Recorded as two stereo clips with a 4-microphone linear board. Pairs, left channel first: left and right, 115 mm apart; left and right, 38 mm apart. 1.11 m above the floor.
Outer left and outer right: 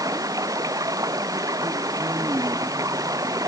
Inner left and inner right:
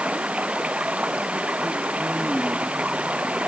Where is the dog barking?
No dog barking in this recording.